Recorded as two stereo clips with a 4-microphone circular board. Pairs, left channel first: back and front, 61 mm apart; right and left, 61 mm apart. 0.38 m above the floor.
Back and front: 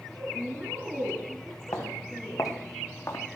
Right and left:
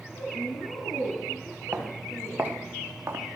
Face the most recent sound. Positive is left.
turn(degrees=140)